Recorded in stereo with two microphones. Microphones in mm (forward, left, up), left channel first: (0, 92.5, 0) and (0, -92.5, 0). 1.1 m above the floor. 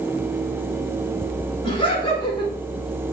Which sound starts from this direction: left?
Laughter, at 1.6 s.